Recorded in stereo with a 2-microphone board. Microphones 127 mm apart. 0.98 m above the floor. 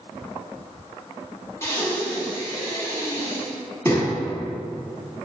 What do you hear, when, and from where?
1.6 s breathing: 20° left (ahead or behind), 0.9 m